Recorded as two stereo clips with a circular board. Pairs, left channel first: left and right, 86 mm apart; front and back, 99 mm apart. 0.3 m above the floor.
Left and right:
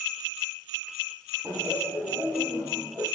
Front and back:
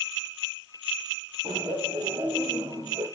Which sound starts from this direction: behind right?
Laughter, at 1.4 s.